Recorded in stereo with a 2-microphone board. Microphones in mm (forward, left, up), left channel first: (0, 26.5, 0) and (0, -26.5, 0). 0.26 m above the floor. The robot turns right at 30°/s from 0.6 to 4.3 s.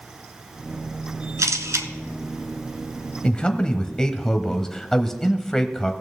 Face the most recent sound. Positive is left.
turn(degrees=10)  # may be behind; listen again after turning